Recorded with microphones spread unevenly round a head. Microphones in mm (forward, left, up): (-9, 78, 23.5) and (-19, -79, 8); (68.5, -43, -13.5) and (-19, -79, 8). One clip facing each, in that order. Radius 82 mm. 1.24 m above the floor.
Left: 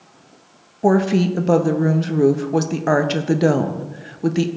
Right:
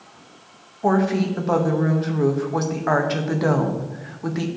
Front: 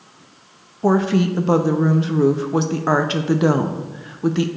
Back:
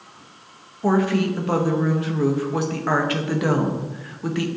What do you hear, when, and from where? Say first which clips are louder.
0.8 s a woman speaking: left 4 dB, front 3 dB; 45° left, 0.6 m